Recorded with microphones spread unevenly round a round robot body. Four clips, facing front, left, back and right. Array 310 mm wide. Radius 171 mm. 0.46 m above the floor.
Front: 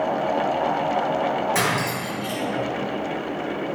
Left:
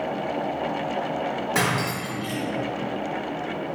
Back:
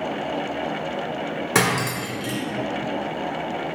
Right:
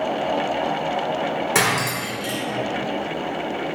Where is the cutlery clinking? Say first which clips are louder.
Right 3 dB, back 1 dB; 170° right, 0.6 m.